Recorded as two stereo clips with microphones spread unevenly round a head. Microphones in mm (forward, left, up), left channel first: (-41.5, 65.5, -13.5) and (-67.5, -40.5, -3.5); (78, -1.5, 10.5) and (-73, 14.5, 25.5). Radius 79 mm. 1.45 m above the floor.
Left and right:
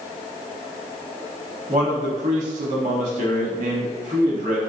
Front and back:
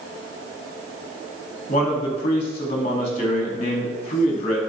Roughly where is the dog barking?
I don't hear a dog barking.